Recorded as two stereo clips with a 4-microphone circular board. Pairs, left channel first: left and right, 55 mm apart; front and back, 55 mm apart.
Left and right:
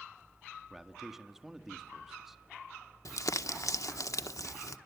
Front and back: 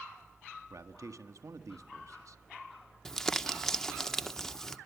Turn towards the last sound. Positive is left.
turn(degrees=80)